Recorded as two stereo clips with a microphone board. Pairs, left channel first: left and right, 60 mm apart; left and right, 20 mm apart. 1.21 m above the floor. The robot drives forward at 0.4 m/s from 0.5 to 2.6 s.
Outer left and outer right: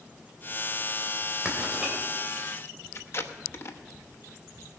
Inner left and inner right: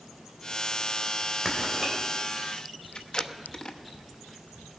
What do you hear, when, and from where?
1.4 s writing: 10° right (ahead or behind), 3 m
3.0 s tape being pulled: 45° left (ahead or behind), 0.9 m